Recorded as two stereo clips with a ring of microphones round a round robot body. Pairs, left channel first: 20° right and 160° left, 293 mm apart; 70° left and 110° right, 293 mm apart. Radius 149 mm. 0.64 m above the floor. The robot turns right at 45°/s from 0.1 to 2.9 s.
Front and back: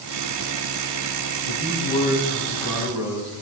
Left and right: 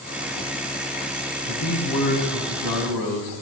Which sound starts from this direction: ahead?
A man speaking, at 1.4 s.